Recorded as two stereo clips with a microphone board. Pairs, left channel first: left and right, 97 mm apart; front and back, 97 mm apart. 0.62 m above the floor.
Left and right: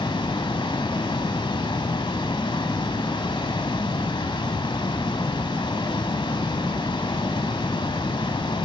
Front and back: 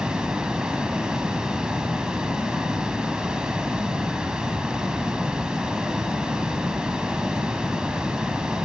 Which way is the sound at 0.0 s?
100° left.